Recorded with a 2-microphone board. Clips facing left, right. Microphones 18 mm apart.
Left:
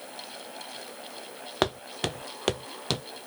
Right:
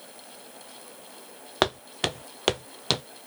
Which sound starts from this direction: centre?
Footsteps, at 1.6 s.